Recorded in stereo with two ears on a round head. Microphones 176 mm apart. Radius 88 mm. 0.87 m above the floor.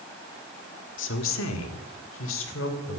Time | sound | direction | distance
1.0 | a woman speaking | 70° left (ahead or behind) | 2 m